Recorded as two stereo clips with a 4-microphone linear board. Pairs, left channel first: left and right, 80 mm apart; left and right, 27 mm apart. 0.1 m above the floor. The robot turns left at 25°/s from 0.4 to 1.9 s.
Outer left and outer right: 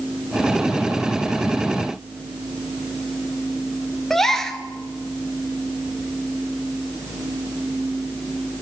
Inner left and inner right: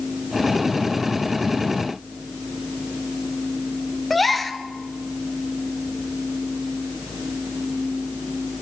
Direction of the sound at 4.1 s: 5° left (ahead or behind).